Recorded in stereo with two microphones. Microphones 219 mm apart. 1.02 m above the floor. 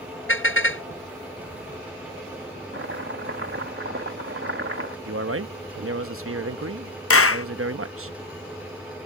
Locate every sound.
0.3 s a car horn: 65° left (ahead or behind)
2.7 s chopping: 70° right (ahead or behind)
5.0 s a man speaking: 75° right (ahead or behind)
7.1 s a clap: 85° left